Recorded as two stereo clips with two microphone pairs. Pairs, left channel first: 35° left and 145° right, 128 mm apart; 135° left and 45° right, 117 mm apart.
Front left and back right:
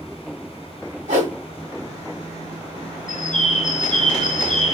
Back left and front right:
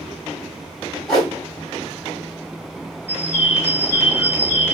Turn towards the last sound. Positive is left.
turn(degrees=30)